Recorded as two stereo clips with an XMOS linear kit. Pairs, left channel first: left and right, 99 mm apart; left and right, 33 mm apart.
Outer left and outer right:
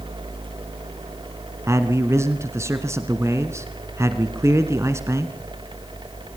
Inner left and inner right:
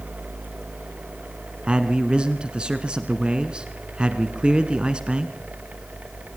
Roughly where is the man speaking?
Right.